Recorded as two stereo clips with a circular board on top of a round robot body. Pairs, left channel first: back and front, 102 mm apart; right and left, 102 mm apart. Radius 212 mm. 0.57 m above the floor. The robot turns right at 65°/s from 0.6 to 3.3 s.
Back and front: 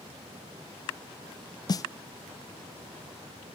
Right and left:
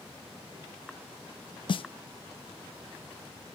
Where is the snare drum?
130° right, 0.5 m; by 1.8 s 120° right, 0.5 m.